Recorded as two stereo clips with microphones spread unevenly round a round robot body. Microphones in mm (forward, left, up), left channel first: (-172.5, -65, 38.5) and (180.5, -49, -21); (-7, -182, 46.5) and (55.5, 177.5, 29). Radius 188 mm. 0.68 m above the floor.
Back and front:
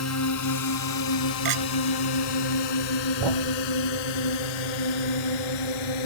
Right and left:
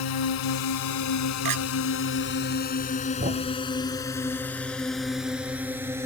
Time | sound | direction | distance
0.0 | a drone | 130° right | ?
1.4 | a clink | 45° left | ?
3.2 | a thud | 10° left | ?